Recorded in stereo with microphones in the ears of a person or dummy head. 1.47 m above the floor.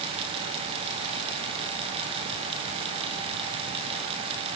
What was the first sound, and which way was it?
Only background noise.